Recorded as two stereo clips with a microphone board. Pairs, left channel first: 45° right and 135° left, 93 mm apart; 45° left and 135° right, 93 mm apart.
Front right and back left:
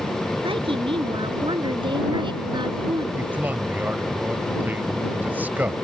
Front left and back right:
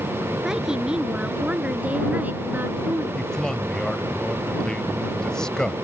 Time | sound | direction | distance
0.4 | a woman speaking | 140° left | ?
3.2 | a man speaking | 115° left | ?